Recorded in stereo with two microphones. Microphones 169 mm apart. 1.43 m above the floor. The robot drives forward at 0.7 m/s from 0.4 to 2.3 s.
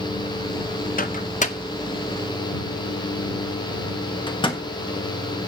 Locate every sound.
1.0 s a microwave: 50° left (ahead or behind), 0.7 m; by 4.6 s 30° left (ahead or behind), 1.2 m